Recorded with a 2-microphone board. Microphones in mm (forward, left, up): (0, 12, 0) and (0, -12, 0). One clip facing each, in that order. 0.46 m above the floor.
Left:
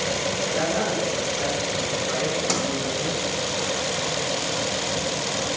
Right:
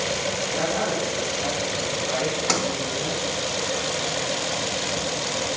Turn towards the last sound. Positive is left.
turn(degrees=-25)  # may be behind; listen again after turning